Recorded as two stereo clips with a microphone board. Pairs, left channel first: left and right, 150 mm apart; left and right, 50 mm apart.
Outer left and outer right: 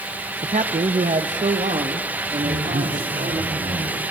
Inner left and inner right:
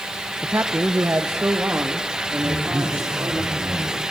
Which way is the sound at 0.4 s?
45° right (ahead or behind).